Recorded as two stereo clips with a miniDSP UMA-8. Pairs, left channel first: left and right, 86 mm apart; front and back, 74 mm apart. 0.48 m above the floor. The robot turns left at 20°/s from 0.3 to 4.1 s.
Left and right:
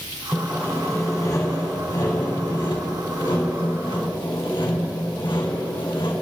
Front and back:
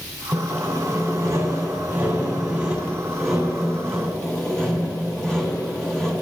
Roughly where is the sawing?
Behind left.